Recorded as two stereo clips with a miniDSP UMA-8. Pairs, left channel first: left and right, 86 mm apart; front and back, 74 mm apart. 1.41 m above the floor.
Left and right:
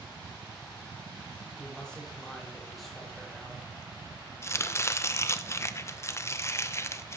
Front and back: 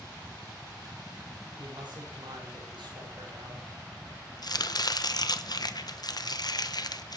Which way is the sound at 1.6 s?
170° left.